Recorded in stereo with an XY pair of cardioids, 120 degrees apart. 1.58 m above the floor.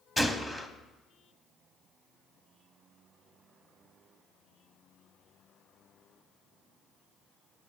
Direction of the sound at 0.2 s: 10° left.